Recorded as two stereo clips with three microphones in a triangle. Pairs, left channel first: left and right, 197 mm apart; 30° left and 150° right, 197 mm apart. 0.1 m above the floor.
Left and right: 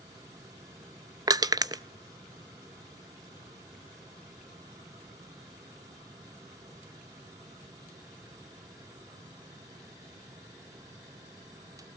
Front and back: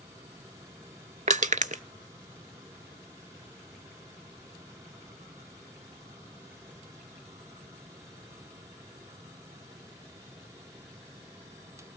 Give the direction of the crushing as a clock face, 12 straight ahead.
5 o'clock.